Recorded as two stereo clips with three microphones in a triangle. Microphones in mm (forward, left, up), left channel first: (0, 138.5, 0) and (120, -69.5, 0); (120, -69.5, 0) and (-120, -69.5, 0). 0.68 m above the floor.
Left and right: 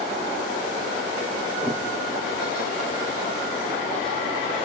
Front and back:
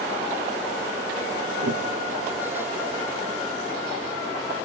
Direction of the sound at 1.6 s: 160° right.